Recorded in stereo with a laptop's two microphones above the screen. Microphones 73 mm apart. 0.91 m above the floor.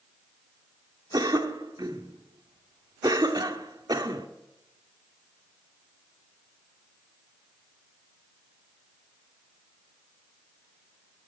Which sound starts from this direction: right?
A cough, at 1.1 s.